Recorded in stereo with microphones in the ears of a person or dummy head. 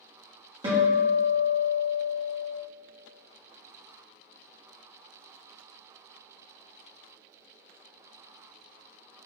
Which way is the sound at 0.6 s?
30° right (ahead or behind).